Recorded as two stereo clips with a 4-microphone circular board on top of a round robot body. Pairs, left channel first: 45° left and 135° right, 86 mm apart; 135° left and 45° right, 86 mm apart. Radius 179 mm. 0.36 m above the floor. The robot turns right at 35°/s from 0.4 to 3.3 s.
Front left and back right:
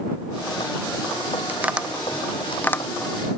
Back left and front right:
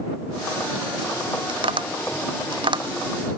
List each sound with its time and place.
1.5 s tapping: 65° right; by 2.9 s 20° right